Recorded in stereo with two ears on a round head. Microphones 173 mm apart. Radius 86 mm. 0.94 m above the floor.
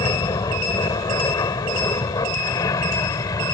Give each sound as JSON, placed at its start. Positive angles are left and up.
{"t": 0.0, "sound": "an aircraft", "side_deg": 20}